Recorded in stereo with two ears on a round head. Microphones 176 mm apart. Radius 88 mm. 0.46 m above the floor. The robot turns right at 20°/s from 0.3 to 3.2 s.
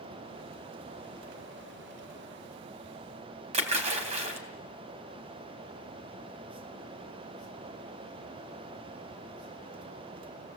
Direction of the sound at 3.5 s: 35° right (ahead or behind).